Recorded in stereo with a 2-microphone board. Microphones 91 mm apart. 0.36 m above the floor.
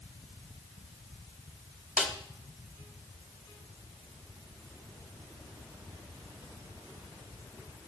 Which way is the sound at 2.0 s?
10° right (ahead or behind).